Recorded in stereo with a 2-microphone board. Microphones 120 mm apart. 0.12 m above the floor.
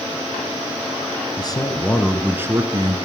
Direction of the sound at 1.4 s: 40° left (ahead or behind).